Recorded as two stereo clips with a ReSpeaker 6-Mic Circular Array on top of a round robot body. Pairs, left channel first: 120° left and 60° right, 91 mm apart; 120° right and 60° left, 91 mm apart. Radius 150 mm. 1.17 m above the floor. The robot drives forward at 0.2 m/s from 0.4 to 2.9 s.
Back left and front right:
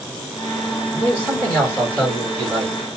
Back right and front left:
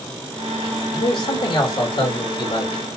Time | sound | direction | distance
0.9 | a man speaking | 150° right | 2 m